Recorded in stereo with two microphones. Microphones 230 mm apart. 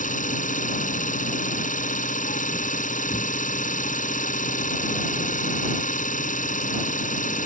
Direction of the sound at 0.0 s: 35° left (ahead or behind).